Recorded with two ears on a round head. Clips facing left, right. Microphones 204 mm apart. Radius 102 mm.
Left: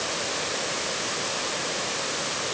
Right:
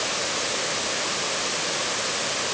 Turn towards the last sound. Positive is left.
No sound to turn to.